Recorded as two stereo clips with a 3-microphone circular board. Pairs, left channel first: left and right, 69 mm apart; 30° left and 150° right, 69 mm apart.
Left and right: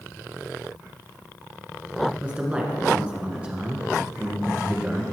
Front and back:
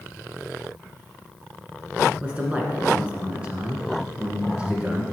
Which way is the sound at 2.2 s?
120° right.